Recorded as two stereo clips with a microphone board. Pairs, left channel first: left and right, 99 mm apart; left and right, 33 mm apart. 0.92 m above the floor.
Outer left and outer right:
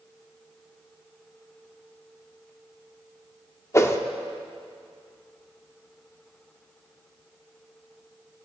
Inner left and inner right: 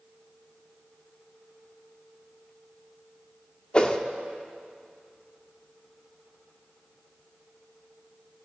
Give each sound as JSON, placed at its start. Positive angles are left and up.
{"t": 3.7, "sound": "a whoosh", "side_deg": 30, "distance_m": 0.9}